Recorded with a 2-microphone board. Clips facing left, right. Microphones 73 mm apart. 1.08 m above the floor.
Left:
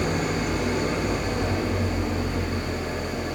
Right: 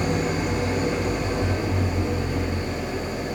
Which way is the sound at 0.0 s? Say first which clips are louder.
Right 1 dB; 65° left (ahead or behind).